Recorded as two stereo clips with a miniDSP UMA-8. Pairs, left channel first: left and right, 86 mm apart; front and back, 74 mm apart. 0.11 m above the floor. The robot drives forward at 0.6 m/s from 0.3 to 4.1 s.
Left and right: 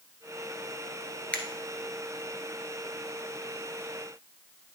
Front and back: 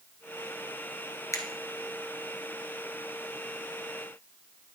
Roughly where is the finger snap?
Ahead.